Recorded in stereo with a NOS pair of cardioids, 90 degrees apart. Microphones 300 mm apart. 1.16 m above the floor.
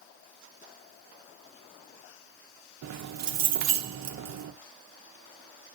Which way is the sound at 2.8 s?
65° right.